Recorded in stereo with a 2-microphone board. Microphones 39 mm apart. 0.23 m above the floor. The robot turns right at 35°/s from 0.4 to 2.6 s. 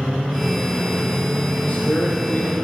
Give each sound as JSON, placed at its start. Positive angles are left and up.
{"t": 1.6, "sound": "a man speaking", "azimuth_deg": 40, "distance_m": 8.0}